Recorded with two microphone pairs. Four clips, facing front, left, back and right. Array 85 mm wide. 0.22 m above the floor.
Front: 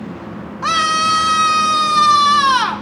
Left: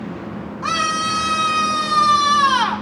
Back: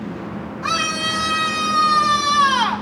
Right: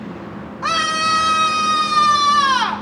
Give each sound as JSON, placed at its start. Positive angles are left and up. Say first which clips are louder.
{"t": 0.6, "sound": "a scream", "louder": "right 2 dB, front 8 dB", "azimuth_deg": -20, "distance_m": 1.8}